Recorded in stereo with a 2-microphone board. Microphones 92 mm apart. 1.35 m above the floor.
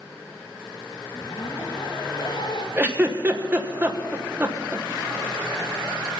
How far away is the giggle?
About 1.2 m.